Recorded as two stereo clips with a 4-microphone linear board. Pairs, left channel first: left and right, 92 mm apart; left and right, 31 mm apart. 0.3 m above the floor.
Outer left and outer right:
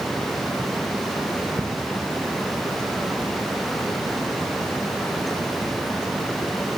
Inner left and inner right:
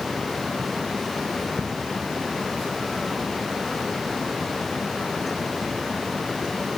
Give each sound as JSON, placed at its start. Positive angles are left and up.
{"t": 1.6, "sound": "ticking", "side_deg": -35, "distance_m": 2.5}